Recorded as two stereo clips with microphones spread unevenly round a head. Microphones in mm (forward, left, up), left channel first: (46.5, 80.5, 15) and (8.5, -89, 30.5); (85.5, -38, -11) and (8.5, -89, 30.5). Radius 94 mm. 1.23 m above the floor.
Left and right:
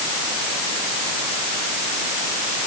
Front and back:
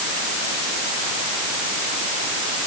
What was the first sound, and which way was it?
Only background noise.